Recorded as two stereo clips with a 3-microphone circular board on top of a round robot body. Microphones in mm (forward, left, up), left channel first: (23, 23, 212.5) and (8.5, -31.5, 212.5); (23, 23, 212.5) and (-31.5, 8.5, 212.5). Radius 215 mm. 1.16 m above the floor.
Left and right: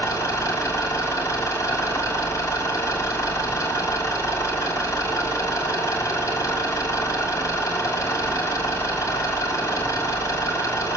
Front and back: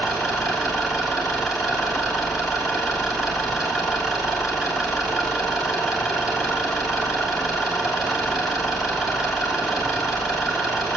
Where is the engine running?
110° left, 2.5 m.